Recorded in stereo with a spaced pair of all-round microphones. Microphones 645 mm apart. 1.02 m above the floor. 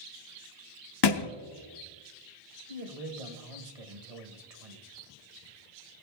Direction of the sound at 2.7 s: 65° right (ahead or behind).